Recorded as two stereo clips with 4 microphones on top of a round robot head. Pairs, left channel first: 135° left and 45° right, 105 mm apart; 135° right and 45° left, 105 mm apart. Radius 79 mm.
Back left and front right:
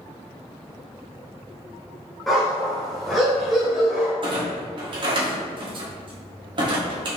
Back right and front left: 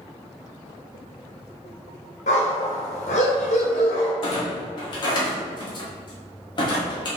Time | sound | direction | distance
2.3 | a dog barking | 140° right | 1.3 m
4.2 | a clunk | 90° right | 1.4 m